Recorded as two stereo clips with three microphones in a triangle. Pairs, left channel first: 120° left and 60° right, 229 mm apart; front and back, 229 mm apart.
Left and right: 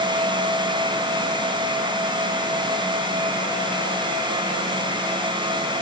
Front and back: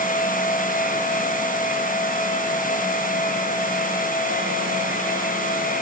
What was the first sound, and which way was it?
Only background noise.